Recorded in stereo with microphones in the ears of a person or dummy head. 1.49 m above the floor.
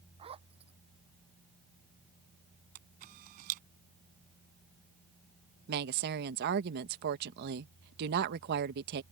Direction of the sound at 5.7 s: 60° right (ahead or behind).